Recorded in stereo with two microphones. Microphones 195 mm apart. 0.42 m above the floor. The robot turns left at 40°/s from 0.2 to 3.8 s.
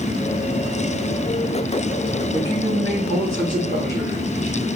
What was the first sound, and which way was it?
A man speaking, 140° left.